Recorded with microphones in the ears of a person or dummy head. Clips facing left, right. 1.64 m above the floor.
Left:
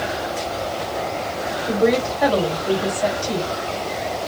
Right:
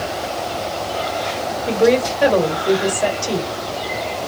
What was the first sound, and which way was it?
A woman speaking, 40° right (ahead or behind).